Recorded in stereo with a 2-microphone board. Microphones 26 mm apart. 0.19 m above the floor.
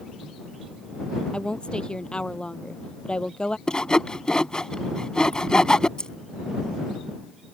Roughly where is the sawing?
Left.